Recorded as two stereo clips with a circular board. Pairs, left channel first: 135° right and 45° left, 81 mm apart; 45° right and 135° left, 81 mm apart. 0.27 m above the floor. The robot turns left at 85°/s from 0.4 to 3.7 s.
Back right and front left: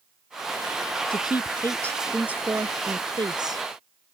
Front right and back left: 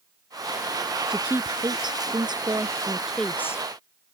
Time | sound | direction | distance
1.1 | a woman speaking | 145° right | ?